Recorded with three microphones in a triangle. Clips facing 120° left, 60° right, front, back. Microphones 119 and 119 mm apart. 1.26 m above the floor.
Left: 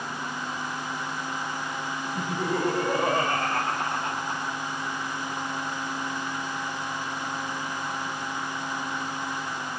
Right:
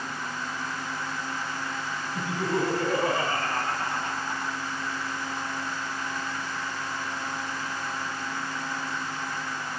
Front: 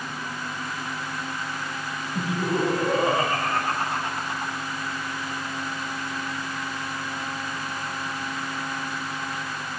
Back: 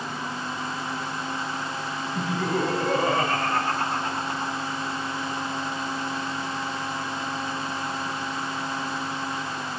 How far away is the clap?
No clap in this recording.